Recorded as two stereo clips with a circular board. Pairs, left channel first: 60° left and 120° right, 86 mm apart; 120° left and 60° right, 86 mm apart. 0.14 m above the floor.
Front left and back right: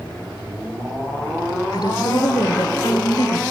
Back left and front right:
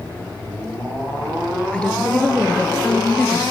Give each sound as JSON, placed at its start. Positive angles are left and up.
{"t": 1.7, "sound": "a woman speaking", "azimuth_deg": 45, "distance_m": 2.5}